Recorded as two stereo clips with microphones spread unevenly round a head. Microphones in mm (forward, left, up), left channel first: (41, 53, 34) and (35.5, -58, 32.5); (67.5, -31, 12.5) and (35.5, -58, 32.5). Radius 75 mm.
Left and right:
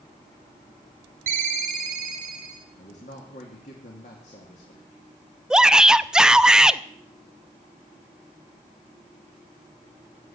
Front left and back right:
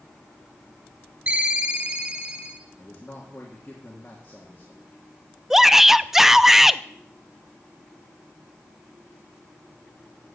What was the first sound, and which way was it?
A ringtone, 100° right.